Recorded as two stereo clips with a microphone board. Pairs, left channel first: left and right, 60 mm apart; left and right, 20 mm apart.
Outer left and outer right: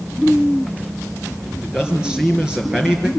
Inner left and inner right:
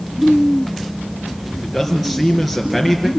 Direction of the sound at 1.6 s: 10° right (ahead or behind).